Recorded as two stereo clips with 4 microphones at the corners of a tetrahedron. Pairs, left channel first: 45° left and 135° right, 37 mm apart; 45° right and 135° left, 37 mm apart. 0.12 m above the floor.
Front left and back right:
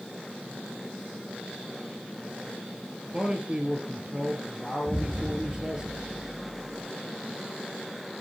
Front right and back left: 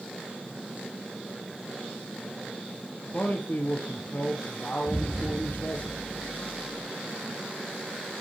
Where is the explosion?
115° right, 0.9 m.